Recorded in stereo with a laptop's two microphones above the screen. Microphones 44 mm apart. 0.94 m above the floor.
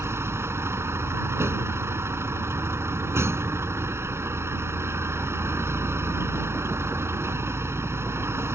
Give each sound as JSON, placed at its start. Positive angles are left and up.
{"t": 0.0, "sound": "a vehicle", "side_deg": -85}